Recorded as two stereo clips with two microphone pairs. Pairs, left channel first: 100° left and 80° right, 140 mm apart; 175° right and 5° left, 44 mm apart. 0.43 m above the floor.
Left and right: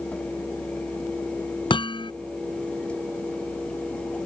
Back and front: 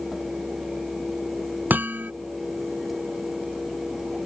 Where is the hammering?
50° left.